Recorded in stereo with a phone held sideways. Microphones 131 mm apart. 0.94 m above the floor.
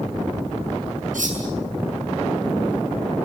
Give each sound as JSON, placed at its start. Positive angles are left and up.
{"t": 1.1, "sound": "cutlery clinking", "side_deg": -90, "distance_m": 7.0}